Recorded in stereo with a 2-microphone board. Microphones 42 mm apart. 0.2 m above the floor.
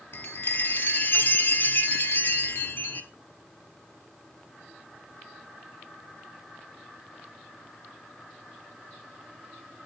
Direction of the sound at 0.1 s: 55° left (ahead or behind).